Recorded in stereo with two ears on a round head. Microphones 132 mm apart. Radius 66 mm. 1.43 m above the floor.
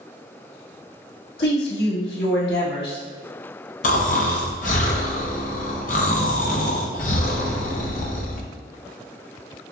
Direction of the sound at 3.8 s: 55° left (ahead or behind).